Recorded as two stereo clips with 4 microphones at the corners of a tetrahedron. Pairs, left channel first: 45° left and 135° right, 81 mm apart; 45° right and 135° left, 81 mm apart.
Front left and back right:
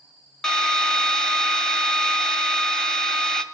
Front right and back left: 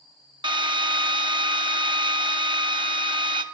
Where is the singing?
I don't hear singing.